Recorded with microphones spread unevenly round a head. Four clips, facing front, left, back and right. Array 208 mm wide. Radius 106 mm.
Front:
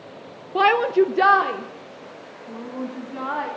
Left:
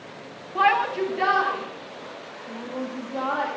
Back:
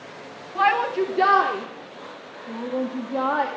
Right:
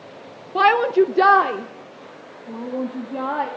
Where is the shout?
35° right, 0.8 m; by 3.5 s 145° right, 2 m.